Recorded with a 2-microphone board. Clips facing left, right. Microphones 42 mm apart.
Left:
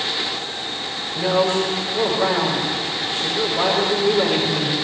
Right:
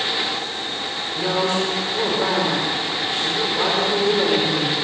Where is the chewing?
No chewing in this recording.